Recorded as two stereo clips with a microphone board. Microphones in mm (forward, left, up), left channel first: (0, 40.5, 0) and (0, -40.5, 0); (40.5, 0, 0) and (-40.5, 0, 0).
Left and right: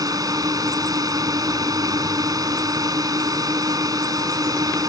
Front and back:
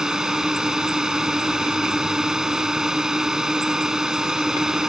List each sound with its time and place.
0.0 s a drone: 100° right